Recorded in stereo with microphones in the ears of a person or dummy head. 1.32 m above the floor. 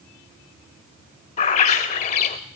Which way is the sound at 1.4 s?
35° left (ahead or behind).